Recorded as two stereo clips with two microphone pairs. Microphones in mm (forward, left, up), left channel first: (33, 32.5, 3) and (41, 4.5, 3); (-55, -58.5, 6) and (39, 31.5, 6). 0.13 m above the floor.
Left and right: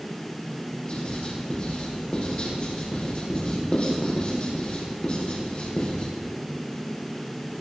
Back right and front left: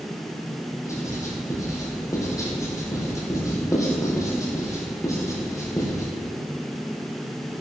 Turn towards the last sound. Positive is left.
turn(degrees=160)